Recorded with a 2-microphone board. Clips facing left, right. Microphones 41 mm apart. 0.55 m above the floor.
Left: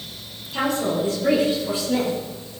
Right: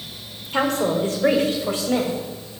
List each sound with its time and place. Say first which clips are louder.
0.5 s a woman speaking: right 2 dB; 60° right (ahead or behind), 1.6 m; by 2.1 s 70° right (ahead or behind), 2.5 m